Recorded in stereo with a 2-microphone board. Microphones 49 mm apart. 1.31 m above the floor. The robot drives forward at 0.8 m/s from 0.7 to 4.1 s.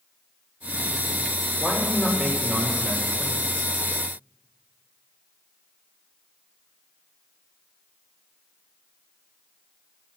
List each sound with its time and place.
1.6 s a man speaking: 15° left (ahead or behind), 4 m; by 3.7 s 10° left (ahead or behind), 6 m